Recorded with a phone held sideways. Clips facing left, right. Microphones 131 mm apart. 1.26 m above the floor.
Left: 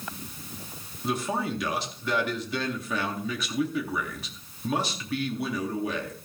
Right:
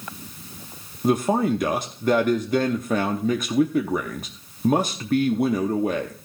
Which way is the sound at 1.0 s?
50° right (ahead or behind).